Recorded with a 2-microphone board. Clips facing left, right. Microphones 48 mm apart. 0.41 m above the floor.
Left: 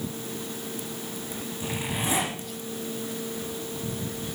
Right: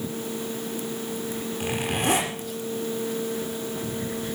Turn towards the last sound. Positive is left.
turn(degrees=-65)  # may be behind; listen again after turning